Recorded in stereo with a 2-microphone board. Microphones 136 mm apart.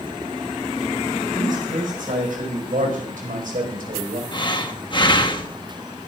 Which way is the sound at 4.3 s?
35° left (ahead or behind).